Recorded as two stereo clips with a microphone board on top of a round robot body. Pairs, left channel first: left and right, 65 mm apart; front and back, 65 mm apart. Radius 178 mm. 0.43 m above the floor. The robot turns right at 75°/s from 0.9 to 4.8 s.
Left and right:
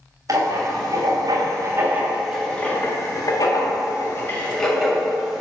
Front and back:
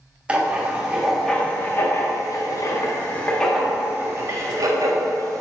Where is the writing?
110° right, 1.5 m; by 5.4 s straight behind, 1.5 m.